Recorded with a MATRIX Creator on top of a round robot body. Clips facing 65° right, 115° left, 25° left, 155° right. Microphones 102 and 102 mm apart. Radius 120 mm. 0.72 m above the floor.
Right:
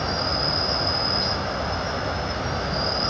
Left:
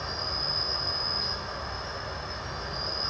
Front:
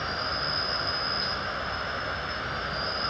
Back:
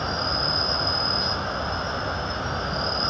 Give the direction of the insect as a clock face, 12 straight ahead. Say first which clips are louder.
Right 10 dB, back 5 dB; 3 o'clock.